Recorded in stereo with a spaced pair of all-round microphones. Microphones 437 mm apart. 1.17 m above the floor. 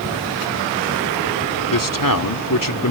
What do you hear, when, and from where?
1.7 s a man speaking: 45° left (ahead or behind)